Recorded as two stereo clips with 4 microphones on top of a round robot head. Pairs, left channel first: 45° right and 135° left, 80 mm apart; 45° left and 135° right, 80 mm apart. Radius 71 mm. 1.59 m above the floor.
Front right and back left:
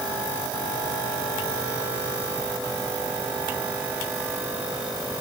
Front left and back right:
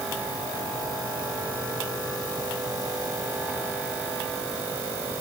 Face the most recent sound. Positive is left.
No sound to turn to.